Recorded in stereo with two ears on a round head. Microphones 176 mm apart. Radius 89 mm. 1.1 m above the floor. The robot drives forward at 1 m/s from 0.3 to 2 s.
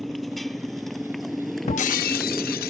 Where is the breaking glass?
30° left (ahead or behind); by 2.7 s 45° left (ahead or behind).